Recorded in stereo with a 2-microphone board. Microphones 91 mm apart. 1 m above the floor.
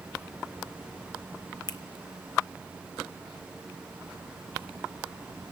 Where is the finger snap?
50° left (ahead or behind), 1.0 m.